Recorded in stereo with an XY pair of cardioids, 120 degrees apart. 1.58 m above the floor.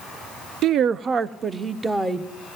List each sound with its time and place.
0.6 s a woman speaking: 60° right, 0.6 m; by 2.3 s 15° right, 1.3 m